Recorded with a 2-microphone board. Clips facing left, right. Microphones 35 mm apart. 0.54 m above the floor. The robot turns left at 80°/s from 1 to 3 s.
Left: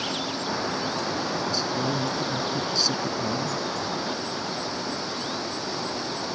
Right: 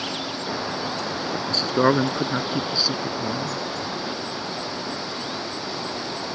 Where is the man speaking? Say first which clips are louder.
Right 3 dB; 35° right (ahead or behind); by 3.6 s 10° right (ahead or behind).